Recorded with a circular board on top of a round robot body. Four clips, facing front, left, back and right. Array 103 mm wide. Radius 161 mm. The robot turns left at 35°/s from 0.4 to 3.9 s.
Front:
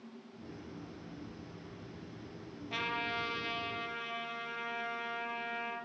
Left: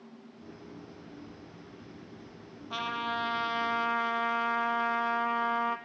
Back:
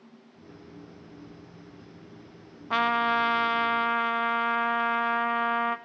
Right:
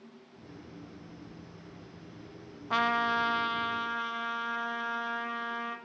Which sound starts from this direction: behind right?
A trumpet, at 2.7 s.